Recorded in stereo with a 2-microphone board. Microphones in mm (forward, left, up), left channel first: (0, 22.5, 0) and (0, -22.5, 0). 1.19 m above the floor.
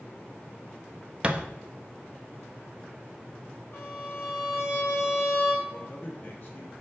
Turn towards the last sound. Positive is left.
turn(degrees=45)  # may be behind; listen again after turning